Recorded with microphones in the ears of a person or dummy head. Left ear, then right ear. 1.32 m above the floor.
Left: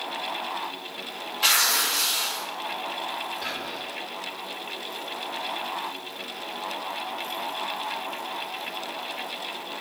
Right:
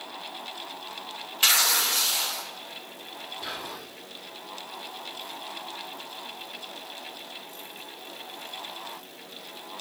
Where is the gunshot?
I don't hear a gunshot.